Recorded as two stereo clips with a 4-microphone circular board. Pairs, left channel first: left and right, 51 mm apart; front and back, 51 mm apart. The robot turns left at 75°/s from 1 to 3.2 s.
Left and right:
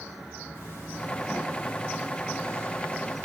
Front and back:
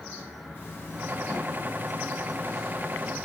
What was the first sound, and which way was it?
A zipper, 50° left.